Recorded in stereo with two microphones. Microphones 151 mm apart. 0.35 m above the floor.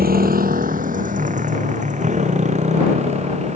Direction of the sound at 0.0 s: 80° right.